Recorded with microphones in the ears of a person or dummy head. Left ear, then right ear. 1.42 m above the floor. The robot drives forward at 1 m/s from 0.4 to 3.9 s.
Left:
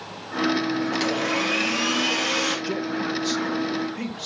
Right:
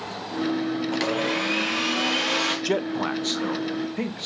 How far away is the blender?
About 1.1 m.